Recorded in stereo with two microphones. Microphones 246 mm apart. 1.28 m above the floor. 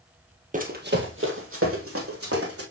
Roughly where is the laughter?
I don't hear laughter.